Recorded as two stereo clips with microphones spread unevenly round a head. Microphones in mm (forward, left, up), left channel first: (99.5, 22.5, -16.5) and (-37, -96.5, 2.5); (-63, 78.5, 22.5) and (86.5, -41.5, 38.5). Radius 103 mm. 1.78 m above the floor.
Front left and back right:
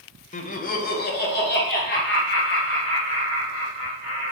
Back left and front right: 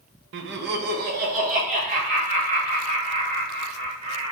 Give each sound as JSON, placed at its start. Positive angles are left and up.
{"t": 0.3, "sound": "laughter", "azimuth_deg": -10, "distance_m": 0.6}